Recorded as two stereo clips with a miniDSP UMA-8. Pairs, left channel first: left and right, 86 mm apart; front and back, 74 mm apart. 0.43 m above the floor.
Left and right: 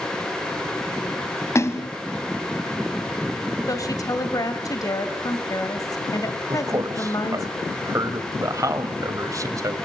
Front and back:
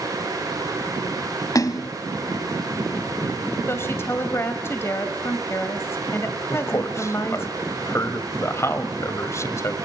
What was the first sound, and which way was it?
A splash, 35° left.